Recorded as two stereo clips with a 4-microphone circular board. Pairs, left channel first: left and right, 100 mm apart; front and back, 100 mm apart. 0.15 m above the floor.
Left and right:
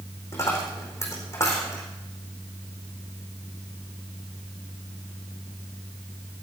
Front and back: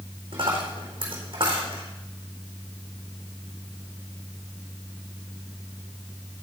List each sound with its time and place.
0.3 s a dropped coin: 150° left, 4.5 m